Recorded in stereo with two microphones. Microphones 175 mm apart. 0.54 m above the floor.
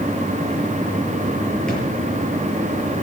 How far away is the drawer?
About 7 m.